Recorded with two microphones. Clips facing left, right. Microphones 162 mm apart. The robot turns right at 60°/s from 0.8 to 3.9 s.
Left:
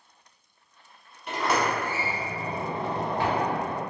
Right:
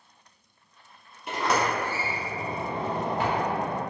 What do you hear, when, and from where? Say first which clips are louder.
1.3 s a sliding door: even; 10° right, 0.8 m; by 3.8 s 145° left, 0.8 m